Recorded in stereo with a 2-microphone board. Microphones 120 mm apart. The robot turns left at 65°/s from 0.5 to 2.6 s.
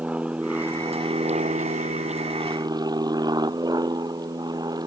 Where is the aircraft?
10° right; by 4.9 s 145° right.